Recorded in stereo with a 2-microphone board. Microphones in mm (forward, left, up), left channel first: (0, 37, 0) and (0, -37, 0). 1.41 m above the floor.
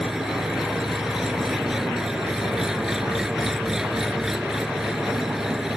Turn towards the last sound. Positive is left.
turn(degrees=-5)  # may be behind; listen again after turning